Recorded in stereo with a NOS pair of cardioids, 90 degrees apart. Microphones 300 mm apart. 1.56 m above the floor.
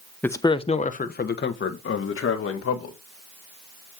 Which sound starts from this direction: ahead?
A man speaking, at 0.2 s.